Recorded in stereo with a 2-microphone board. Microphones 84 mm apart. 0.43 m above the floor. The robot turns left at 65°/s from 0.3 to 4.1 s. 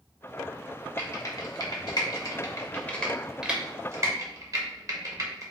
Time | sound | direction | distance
1.0 | typing on a keyboard | 25° left (ahead or behind) | 0.9 m